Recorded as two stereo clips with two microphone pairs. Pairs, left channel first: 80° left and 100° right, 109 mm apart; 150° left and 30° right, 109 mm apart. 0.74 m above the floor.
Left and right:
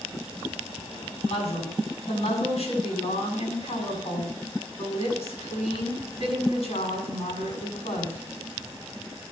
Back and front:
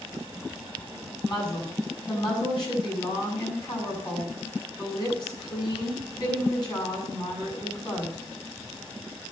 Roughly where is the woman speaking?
Left.